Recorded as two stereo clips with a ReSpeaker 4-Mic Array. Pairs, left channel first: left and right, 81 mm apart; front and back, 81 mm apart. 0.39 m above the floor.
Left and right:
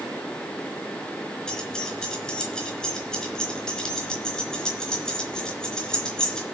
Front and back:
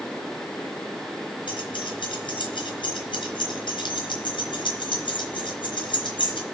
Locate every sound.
1.5 s keys jangling: 10° left, 3.5 m